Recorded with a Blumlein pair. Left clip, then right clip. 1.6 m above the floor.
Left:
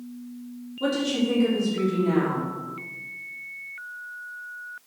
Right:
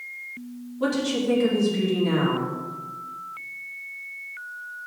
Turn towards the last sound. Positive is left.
turn(degrees=-10)